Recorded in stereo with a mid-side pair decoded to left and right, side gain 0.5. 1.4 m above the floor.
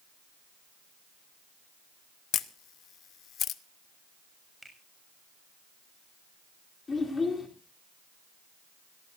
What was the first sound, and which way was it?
A camera shutter, 60° left.